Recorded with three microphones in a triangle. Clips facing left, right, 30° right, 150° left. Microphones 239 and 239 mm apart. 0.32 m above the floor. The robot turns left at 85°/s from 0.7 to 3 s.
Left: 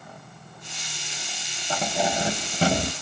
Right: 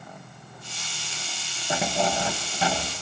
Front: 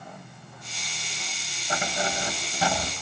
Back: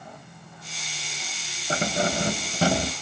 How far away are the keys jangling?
About 1.0 m.